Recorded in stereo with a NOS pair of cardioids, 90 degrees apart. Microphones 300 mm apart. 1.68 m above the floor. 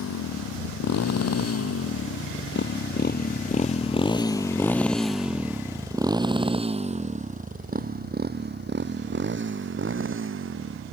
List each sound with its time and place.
0.0 s a motorcycle: 65° left; by 10.9 s 45° right